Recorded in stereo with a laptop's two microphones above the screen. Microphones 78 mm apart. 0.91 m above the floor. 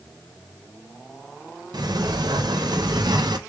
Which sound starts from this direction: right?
A sliding door, at 1.7 s.